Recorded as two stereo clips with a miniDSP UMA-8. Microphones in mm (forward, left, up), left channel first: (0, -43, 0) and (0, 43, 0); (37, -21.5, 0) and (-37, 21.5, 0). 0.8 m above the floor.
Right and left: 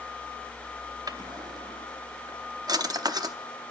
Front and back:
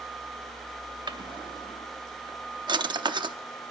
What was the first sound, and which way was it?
A drawer, 125° left.